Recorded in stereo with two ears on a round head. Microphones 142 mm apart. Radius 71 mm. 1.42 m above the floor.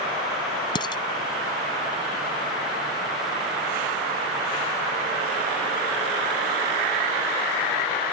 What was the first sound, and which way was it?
Dishes clattering, 30° left (ahead or behind).